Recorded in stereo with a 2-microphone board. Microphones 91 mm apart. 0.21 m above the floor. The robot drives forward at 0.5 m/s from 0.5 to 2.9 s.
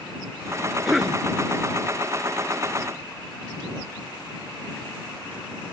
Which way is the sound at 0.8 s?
5° right (ahead or behind).